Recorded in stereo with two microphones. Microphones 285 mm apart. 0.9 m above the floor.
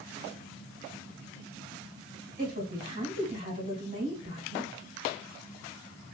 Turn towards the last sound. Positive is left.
turn(degrees=-30)  # may be behind; listen again after turning